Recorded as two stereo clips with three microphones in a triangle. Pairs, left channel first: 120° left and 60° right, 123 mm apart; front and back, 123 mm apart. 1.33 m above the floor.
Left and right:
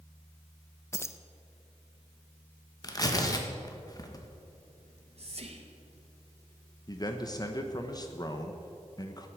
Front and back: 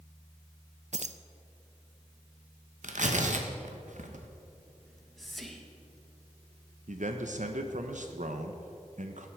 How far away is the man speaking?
About 1.0 m.